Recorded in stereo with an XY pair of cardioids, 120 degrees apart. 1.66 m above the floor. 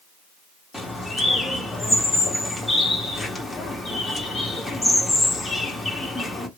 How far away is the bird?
About 1.7 m.